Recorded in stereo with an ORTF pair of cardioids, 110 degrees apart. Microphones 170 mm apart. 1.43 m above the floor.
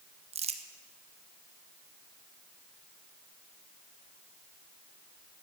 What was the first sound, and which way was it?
Crumpling, 35° right.